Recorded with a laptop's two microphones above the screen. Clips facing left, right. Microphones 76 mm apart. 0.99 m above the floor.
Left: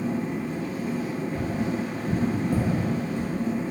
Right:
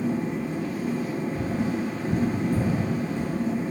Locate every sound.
0.0 s a machine running: 10° right (ahead or behind), 1.3 m
1.4 s tapping: 80° left, 0.6 m